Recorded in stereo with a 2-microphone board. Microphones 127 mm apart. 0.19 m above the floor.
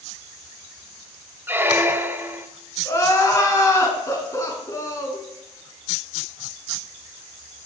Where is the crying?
25° left (ahead or behind), 2.5 m.